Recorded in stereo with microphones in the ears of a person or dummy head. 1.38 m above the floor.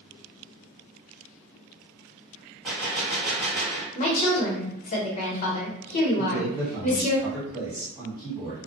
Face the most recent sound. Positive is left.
turn(degrees=-10)  # may be behind; listen again after turning